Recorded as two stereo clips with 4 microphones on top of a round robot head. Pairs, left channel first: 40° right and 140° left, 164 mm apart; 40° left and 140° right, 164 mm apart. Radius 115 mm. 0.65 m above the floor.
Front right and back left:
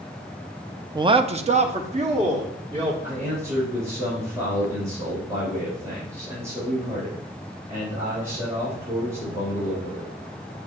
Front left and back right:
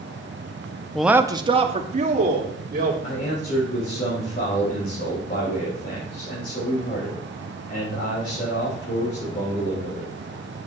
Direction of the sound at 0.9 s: 125° left.